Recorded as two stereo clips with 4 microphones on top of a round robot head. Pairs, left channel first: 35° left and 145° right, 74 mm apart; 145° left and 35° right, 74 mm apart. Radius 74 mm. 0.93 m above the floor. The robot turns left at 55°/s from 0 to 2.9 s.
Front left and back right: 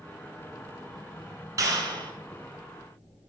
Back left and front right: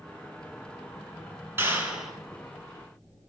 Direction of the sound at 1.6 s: 95° right.